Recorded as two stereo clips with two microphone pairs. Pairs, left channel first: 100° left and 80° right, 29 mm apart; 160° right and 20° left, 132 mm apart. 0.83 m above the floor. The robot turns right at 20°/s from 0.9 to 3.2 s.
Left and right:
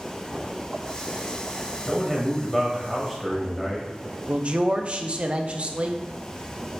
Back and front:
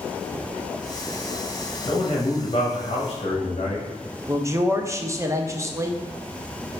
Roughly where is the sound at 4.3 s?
Ahead right.